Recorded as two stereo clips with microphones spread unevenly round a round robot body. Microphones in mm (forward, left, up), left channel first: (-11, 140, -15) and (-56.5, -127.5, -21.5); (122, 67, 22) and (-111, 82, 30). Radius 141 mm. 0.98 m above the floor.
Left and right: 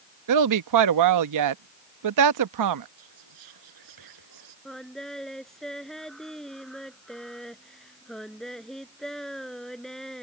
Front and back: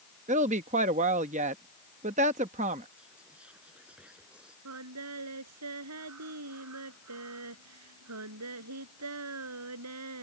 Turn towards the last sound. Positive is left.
turn(degrees=170)